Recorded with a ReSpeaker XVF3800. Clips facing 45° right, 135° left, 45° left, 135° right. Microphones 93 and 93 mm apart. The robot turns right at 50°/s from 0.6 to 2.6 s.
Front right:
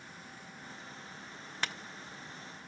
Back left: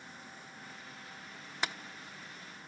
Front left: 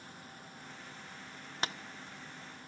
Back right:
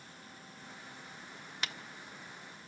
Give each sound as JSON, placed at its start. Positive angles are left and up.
{"t": 1.6, "sound": "tapping", "azimuth_deg": 65, "distance_m": 1.0}